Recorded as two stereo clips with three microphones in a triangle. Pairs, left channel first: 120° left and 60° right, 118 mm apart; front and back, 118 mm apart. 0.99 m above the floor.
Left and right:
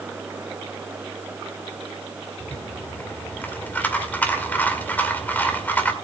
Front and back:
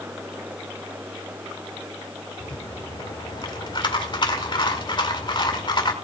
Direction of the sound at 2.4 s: 45° left.